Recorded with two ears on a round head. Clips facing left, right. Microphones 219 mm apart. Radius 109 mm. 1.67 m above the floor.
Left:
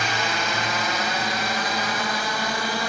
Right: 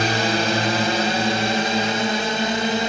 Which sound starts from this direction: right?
A drone, at 0.0 s.